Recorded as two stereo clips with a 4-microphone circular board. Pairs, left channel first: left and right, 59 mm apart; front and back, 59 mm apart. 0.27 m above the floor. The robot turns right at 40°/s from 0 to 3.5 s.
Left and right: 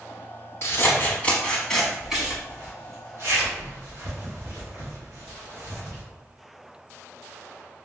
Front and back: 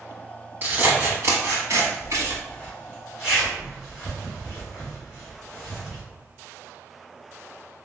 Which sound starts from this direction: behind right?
A zipper, at 2.5 s.